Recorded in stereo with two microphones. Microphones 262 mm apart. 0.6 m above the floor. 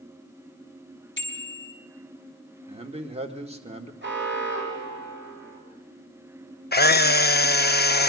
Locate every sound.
1.2 s a bicycle bell: 40° left (ahead or behind), 2.5 m
2.7 s a man speaking: 20° right (ahead or behind), 1.7 m
4.0 s an alarm: 40° right (ahead or behind), 4 m
6.7 s a camera shutter: 35° left (ahead or behind), 0.6 m